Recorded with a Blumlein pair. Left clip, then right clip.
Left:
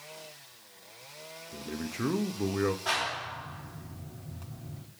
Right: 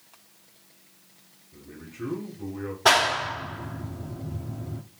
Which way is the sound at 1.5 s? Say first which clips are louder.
Left 6 dB; 60° left.